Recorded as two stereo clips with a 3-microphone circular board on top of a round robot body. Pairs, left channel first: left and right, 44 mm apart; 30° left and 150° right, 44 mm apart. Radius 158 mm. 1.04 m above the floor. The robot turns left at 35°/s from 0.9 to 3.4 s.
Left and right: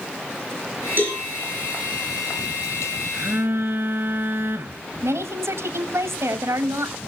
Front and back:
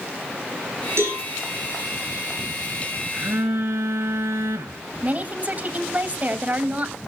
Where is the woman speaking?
95° right, 1.9 m.